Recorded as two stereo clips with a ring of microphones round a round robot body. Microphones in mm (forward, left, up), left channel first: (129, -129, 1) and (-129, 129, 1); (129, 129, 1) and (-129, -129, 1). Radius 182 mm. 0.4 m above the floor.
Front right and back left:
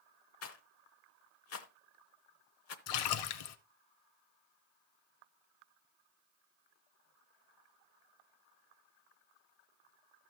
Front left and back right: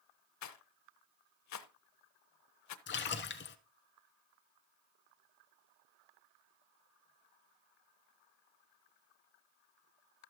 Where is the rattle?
5° left, 0.9 m.